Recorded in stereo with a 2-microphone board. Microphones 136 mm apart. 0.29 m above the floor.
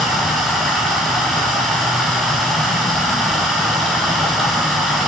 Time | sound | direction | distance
0.0 | running water | centre (ahead or behind) | 4.5 m